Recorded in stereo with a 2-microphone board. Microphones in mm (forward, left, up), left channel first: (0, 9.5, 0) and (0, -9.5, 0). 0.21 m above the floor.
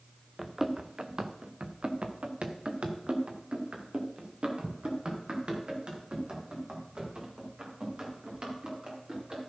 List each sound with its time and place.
0.4 s running footsteps: 20° right (ahead or behind), 1.5 m; by 9.5 s 60° right (ahead or behind), 7.5 m